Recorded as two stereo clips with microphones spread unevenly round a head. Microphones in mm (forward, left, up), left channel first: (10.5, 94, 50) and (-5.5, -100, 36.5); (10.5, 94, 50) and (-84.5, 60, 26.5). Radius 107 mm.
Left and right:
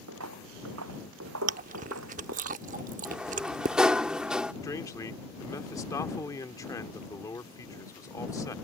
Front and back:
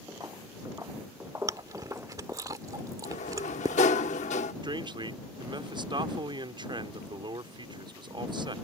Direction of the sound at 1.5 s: 90° right.